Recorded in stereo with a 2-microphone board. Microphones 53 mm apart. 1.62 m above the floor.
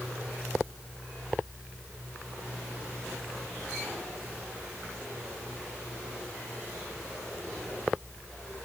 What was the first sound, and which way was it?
Only background noise.